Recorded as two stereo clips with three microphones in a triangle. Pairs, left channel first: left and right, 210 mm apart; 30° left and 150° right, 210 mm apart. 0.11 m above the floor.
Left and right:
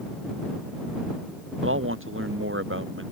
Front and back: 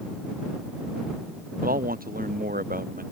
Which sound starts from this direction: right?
A man speaking, at 1.6 s.